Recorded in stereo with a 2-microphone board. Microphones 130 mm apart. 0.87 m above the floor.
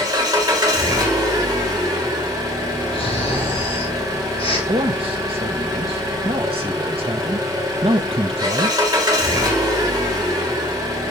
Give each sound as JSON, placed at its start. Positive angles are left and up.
{"t": 0.0, "sound": "an engine running", "side_deg": -30, "distance_m": 2.0}
{"t": 2.9, "sound": "snoring", "side_deg": 45, "distance_m": 2.5}
{"t": 4.7, "sound": "a man speaking", "side_deg": -45, "distance_m": 0.6}